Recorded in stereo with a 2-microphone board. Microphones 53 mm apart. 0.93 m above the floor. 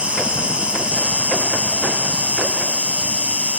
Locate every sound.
0.0 s an insect: 20° right (ahead or behind)